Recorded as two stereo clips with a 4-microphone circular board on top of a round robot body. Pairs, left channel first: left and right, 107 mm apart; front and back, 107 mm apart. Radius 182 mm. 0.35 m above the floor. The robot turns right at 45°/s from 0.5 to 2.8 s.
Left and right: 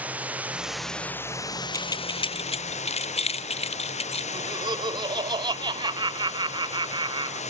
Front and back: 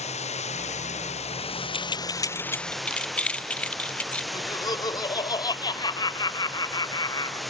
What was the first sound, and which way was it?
Running water, 15° right.